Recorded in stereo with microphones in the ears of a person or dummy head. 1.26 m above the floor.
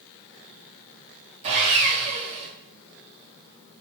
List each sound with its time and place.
1.4 s sawing: 35° right (ahead or behind), 1.9 m